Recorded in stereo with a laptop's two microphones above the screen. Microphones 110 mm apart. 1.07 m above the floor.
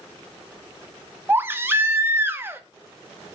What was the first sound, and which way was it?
A baby crying, 20° right (ahead or behind).